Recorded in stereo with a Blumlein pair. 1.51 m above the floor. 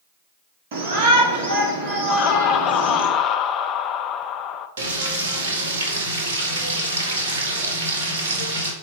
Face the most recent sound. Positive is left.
turn(degrees=-60)